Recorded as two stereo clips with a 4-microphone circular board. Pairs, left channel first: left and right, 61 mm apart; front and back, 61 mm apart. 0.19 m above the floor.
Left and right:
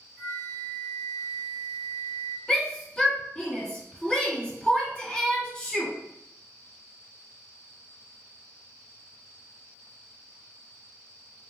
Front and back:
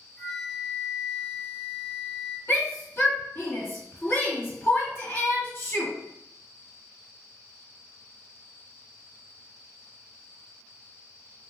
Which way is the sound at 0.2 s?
75° left.